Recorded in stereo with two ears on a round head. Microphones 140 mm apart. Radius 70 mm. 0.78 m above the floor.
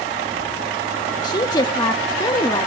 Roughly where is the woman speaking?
Left.